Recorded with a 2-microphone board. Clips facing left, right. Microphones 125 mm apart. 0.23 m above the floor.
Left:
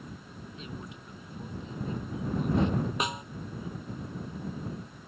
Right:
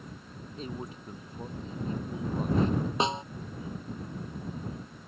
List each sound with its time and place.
0.6 s a man speaking: 40° right (ahead or behind)
3.0 s a snare drum: 30° right (ahead or behind)